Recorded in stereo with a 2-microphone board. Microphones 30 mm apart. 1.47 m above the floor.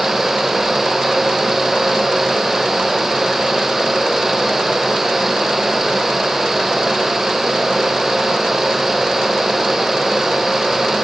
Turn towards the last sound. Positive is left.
No sound to turn to.